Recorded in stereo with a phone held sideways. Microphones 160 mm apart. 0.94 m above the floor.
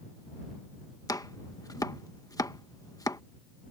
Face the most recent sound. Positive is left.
turn(degrees=25)  # may be behind; listen again after turning